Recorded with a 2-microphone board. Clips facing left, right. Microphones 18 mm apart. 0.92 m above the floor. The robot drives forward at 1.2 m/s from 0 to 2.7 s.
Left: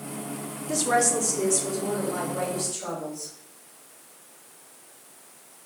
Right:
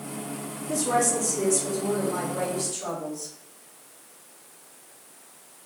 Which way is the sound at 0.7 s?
45° left (ahead or behind).